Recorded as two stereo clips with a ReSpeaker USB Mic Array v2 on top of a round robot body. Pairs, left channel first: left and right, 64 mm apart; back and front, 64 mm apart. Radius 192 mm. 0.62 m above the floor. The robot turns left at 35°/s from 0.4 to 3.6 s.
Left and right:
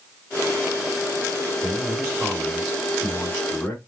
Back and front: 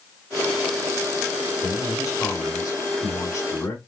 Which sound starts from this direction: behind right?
A man speaking, at 1.6 s.